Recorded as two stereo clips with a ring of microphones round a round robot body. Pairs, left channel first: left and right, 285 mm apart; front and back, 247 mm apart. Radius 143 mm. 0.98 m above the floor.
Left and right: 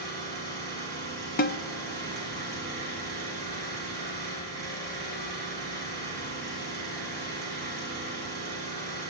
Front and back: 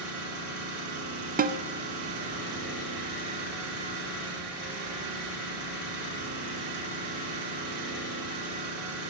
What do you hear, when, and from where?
0.0 s an engine running: 170° left, 3 m
1.4 s a snare drum: 135° left, 0.6 m